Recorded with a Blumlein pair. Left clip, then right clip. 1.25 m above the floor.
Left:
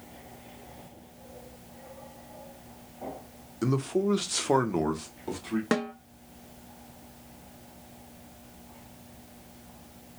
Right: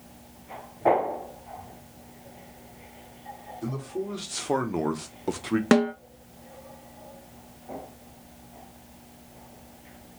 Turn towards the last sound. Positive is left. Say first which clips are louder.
# right 8 dB
turn(degrees=-70)